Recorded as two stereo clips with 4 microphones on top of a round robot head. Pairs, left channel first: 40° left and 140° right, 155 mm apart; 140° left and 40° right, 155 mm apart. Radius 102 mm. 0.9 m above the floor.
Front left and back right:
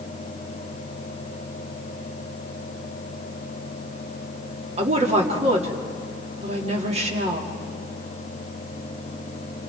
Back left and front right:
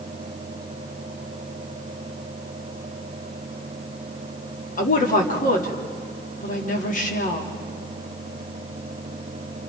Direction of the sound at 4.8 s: 175° left.